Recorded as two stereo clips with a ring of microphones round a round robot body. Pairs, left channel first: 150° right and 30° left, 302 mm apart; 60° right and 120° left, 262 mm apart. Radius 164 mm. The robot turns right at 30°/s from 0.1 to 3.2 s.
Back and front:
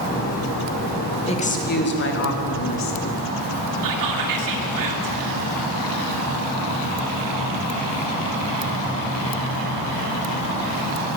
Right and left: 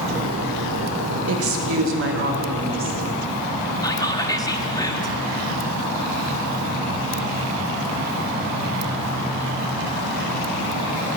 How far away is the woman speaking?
About 1.6 m.